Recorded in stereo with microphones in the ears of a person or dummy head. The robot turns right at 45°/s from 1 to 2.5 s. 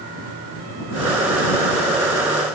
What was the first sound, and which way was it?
Only background noise.